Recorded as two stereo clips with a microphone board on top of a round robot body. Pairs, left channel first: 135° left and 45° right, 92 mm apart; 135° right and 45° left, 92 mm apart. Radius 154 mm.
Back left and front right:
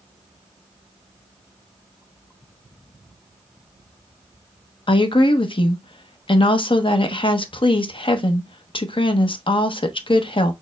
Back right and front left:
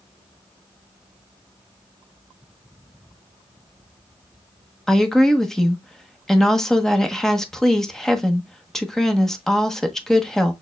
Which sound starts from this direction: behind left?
A woman speaking, at 4.9 s.